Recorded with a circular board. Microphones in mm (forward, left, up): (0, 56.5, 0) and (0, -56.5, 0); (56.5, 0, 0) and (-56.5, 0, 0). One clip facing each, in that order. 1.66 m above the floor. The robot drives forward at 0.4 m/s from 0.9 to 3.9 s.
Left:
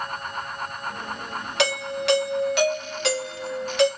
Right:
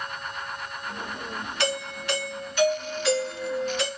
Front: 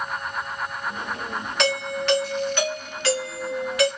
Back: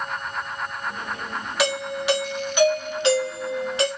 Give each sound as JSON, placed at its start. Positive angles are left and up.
{"t": 1.6, "sound": "a doorbell", "azimuth_deg": 95, "distance_m": 2.5}